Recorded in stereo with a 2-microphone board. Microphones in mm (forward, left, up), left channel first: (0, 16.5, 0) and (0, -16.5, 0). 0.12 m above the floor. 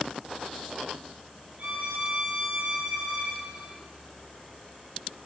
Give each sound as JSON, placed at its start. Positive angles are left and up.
{"t": 1.6, "sound": "a violin", "side_deg": -45, "distance_m": 0.8}